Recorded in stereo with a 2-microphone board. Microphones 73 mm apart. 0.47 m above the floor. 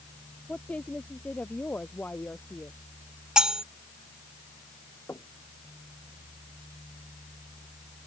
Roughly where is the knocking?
Left.